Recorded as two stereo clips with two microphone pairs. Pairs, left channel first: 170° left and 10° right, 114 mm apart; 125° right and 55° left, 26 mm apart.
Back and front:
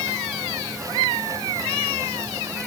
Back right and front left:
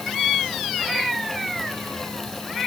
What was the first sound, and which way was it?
Only background noise.